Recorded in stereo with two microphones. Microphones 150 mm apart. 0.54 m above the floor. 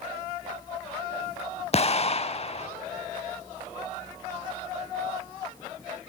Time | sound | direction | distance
1.7 | an explosion | 45° left (ahead or behind) | 0.5 m